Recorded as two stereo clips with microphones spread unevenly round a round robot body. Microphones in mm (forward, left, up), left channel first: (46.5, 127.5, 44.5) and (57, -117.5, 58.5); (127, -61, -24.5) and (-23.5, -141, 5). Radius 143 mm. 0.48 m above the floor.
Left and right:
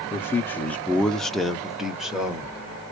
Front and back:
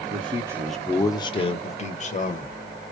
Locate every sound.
0.1 s a man speaking: 160° left, 0.8 m; by 2.6 s straight ahead, 1.6 m